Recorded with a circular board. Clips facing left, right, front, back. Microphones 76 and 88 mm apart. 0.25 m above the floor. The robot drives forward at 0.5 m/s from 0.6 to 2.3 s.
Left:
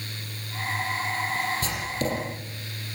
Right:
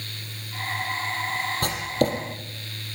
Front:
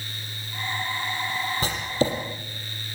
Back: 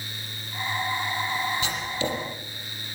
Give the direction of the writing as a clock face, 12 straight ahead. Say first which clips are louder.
Right 4 dB, front 4 dB; 2 o'clock.